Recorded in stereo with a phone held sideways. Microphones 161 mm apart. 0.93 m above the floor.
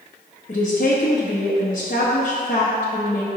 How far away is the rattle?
I don't hear a rattle.